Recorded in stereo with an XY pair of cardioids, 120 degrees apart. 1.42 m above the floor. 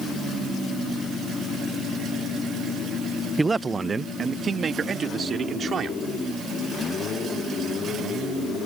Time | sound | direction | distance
3.4 | a man speaking | 15° right | ?